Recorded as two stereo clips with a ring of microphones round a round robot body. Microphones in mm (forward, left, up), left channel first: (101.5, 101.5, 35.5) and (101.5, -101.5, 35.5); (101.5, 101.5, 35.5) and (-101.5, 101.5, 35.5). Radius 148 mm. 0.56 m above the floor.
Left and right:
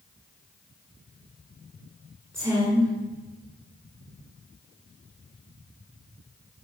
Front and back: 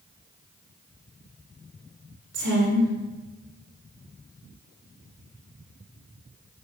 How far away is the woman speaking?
About 2.5 m.